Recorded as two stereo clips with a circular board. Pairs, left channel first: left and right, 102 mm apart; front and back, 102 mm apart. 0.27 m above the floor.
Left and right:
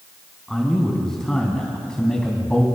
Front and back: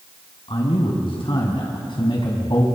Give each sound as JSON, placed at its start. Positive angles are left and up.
{"t": 0.5, "sound": "a man speaking", "azimuth_deg": 5, "distance_m": 3.5}